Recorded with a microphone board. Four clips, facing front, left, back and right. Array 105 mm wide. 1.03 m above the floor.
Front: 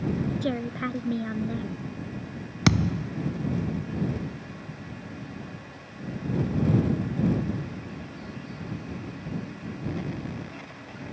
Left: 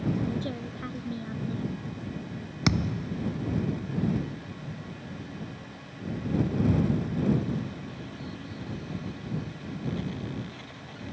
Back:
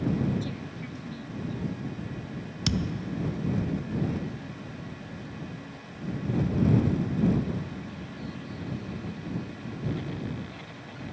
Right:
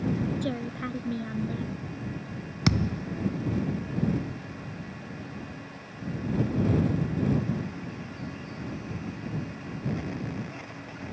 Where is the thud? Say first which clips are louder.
Right 1 dB, front 6 dB; 5° left.